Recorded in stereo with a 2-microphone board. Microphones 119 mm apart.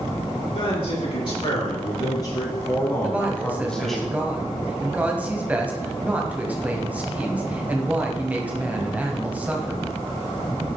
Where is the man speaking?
45° left (ahead or behind), 3.5 m; by 4.0 s centre (ahead or behind), 2 m.